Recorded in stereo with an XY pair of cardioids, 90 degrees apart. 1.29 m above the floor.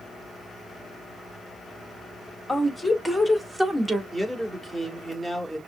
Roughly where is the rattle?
No rattle in this recording.